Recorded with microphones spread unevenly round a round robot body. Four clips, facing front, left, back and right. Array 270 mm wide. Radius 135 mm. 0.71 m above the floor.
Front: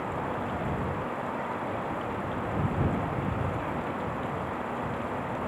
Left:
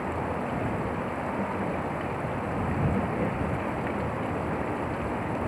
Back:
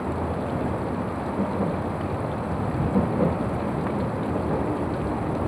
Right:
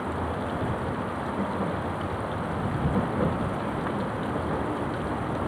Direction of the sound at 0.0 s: 170° right.